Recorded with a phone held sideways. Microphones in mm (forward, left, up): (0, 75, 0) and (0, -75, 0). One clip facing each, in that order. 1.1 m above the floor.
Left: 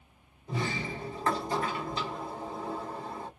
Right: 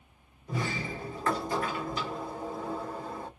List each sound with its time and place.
0.5 s a sliding door: 30° left (ahead or behind), 1.8 m